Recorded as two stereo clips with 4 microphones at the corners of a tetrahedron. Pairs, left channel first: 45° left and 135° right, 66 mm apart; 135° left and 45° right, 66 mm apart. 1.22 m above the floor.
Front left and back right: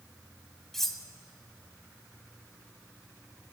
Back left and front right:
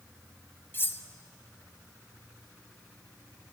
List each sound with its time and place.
0.7 s cutlery clinking: 130° left, 0.5 m